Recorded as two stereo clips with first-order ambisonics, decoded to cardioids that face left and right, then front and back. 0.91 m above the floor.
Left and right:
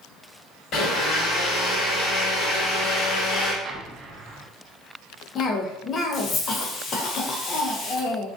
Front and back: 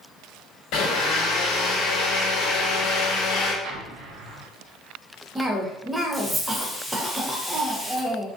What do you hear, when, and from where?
0.7 s a blender: 40° left, 0.9 m
3.6 s an explosion: 150° right, 0.5 m
5.3 s a cough: 110° left, 0.6 m